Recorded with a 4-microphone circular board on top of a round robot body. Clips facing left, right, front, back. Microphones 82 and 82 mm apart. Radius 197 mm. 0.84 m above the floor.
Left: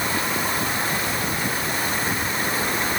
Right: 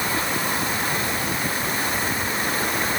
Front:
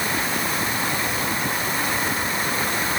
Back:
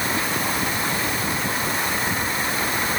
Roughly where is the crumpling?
No crumpling in this recording.